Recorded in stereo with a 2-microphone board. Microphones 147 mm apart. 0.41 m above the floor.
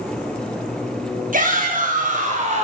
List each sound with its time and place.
1.3 s a shout: 65° right (ahead or behind), 3.5 m; by 2.6 s 50° right (ahead or behind), 2.5 m